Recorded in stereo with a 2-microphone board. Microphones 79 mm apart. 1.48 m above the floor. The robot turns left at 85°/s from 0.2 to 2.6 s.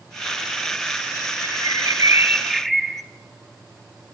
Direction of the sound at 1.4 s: 80° right.